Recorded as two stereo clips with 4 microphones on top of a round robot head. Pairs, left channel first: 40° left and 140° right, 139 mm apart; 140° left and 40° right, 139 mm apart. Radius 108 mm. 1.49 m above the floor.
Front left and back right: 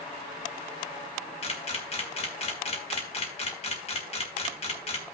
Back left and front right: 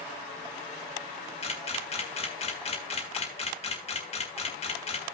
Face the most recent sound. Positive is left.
turn(degrees=90)